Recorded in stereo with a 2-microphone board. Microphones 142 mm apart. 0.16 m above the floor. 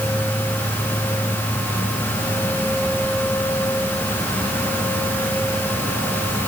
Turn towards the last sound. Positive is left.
No sound to turn to.